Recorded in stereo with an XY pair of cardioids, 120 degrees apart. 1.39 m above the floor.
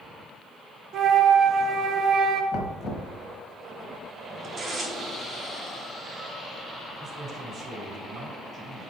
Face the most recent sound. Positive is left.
turn(degrees=-35)